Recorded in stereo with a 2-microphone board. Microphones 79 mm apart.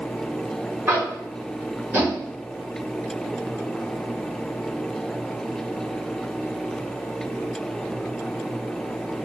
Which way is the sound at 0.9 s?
30° right (ahead or behind).